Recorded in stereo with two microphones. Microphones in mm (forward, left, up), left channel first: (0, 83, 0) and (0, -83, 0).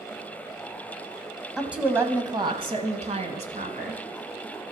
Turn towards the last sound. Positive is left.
turn(degrees=-45)  # may be behind; listen again after turning